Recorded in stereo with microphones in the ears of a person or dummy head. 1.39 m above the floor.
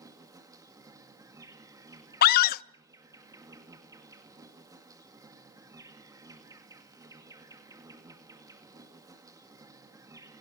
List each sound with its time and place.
0.0 s an insect: 15° right (ahead or behind), 2 m
2.2 s a scream: 50° left (ahead or behind), 0.7 m